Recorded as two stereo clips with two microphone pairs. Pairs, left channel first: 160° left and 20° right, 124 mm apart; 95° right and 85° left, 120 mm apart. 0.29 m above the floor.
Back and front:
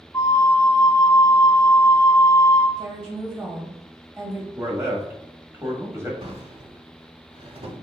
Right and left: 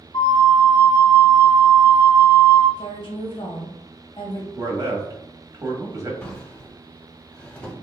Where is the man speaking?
35° left, 1.3 m.